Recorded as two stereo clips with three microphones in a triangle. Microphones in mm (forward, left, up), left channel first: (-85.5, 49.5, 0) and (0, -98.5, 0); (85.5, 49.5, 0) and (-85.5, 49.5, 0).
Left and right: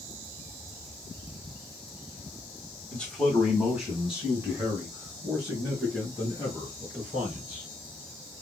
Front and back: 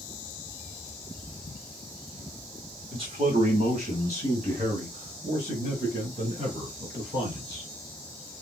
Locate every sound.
2.9 s a man speaking: 160° right, 1.1 m; by 7.7 s 140° right, 5 m